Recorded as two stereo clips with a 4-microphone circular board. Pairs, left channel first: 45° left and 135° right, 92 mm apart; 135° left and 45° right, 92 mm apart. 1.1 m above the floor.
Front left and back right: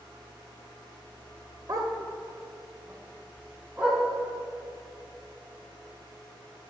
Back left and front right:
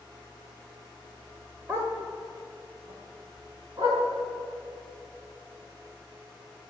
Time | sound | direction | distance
1.7 | a dog barking | 95° right | 1.4 m